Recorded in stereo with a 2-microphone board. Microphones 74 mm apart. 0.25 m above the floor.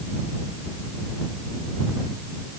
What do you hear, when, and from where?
Only background noise.